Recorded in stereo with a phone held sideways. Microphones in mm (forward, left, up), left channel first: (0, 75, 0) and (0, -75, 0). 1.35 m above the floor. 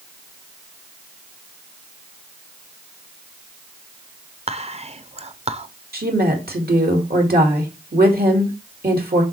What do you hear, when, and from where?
4.5 s whispering: 40° right (ahead or behind), 0.7 m
5.9 s a woman speaking: 80° right, 2 m